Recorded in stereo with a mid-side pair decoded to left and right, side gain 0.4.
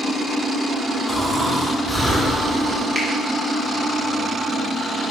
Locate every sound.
1.1 s snoring: 10° right, 3 m
3.0 s a finger snap: 30° right, 2.5 m